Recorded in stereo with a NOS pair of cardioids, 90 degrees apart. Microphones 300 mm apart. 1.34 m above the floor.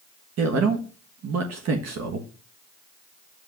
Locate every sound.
0.4 s a man speaking: 60° right, 1.4 m